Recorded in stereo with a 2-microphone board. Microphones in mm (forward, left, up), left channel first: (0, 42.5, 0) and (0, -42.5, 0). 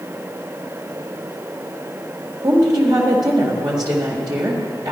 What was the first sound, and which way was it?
A woman speaking, 50° right (ahead or behind).